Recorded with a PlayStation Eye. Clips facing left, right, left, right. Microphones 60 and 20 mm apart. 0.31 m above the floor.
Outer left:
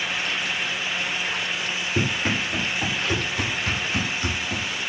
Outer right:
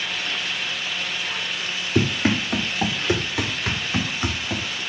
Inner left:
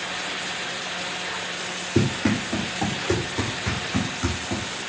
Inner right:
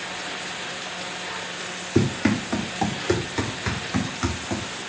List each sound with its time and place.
1.9 s running footsteps: 65° right (ahead or behind), 6.5 m; by 4.8 s 45° right (ahead or behind), 5.5 m